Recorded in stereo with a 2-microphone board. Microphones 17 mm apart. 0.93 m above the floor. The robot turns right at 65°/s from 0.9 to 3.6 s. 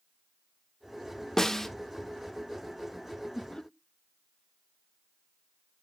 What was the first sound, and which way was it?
A snare drum, 30° left (ahead or behind).